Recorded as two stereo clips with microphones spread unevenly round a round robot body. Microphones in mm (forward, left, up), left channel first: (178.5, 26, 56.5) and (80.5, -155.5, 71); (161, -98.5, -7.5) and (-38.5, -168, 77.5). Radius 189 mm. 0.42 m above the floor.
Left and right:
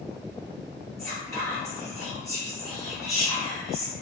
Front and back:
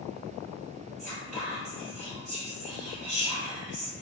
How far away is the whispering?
About 1.4 m.